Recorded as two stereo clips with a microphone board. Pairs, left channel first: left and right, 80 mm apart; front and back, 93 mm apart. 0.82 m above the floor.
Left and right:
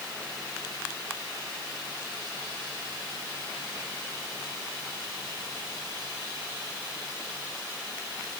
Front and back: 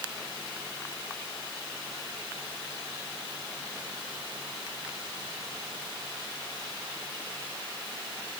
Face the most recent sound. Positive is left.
No sound to turn to.